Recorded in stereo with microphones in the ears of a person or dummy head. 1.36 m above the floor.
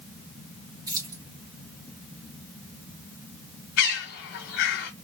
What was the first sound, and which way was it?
Keys jangling, 20° right (ahead or behind).